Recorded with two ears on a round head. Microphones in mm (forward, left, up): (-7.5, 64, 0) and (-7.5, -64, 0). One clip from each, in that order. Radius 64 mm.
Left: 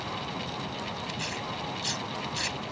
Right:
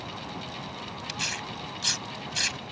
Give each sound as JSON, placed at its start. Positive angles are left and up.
{"t": 1.1, "sound": "tearing paper", "side_deg": -55}